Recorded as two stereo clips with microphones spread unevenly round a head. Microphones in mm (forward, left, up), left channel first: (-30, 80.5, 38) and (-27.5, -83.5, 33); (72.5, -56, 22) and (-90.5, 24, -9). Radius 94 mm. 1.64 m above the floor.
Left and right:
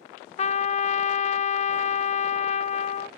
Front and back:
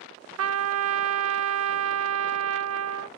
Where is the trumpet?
145° left, 0.6 m.